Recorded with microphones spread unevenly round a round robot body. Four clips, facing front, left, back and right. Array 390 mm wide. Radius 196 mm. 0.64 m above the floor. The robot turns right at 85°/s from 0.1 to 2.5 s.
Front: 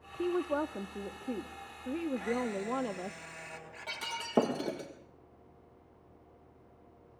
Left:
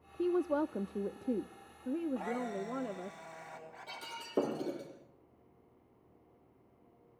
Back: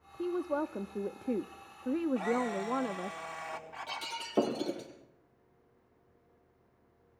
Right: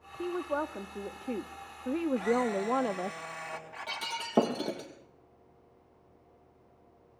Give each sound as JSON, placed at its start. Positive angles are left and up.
{"t": 0.2, "sound": "a woman speaking", "azimuth_deg": 60, "distance_m": 0.5}
{"t": 2.1, "sound": "a camera shutter", "azimuth_deg": -155, "distance_m": 4.5}
{"t": 3.9, "sound": "breaking glass", "azimuth_deg": -70, "distance_m": 6.0}